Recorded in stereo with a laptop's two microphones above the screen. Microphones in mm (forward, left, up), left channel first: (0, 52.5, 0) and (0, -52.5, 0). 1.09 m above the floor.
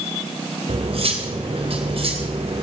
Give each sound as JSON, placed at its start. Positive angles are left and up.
{"t": 0.7, "sound": "cutlery clinking", "side_deg": -60, "distance_m": 2.5}